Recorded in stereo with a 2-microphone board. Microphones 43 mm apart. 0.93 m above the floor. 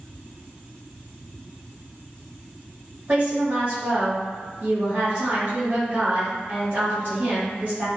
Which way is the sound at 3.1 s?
60° right (ahead or behind).